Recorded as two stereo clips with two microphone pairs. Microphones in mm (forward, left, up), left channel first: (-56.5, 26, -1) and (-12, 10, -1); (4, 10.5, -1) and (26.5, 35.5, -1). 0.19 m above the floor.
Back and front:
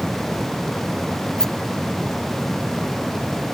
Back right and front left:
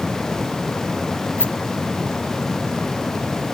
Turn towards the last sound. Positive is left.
turn(degrees=-120)